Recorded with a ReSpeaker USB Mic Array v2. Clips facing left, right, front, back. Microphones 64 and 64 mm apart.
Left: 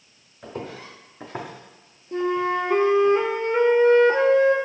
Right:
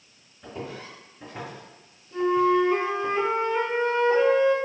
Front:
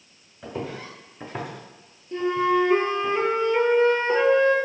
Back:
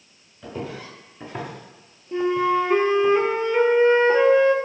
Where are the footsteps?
60° left, 2.0 m; by 3.1 s 150° right, 1.5 m.